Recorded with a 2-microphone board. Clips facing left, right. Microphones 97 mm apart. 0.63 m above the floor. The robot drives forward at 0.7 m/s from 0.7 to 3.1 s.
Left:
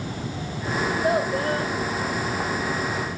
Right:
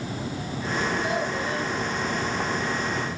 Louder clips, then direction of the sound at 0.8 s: Left 5 dB; 40° left (ahead or behind).